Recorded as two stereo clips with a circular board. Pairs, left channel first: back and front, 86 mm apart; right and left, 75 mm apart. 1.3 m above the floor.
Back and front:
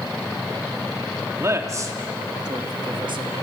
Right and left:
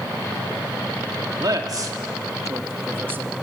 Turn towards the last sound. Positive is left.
turn(degrees=25)